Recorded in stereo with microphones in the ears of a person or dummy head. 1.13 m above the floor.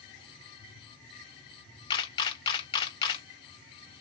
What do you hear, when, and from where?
1.9 s a camera shutter: 30° left (ahead or behind), 0.5 m